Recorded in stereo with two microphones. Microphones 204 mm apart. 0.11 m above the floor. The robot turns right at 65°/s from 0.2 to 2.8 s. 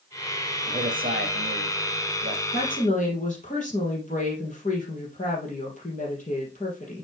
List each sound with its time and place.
0.7 s a man speaking: 140° right, 2 m; by 2.4 s 25° right, 2 m
2.5 s a woman speaking: 50° left (ahead or behind), 3.5 m; by 7.0 s 40° left (ahead or behind), 3.5 m